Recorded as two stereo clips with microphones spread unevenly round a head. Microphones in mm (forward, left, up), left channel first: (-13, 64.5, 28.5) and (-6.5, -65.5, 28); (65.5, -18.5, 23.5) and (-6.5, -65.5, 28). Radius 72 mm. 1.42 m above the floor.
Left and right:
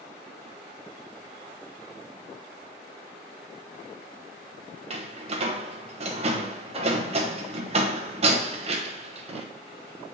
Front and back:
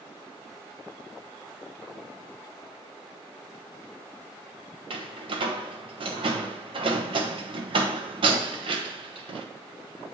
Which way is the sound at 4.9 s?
130° right.